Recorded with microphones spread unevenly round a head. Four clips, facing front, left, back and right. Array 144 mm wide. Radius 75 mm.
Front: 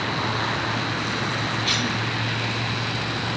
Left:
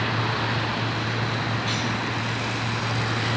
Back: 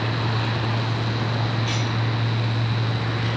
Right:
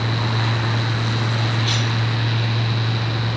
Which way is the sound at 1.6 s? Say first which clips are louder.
Right 2 dB, front 1 dB; 10° right.